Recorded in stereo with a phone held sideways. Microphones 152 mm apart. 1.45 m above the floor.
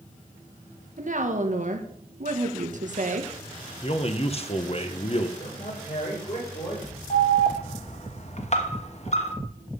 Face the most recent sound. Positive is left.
turn(degrees=50)  # may be behind; listen again after turning